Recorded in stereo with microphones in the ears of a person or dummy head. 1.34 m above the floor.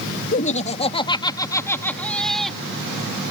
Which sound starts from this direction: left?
Laughter, at 0.3 s.